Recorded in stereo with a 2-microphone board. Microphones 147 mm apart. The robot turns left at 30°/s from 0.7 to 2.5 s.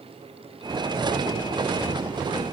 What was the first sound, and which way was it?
Only background noise.